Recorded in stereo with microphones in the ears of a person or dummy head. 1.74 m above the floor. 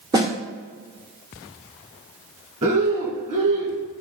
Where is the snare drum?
25° right (ahead or behind), 1.3 m.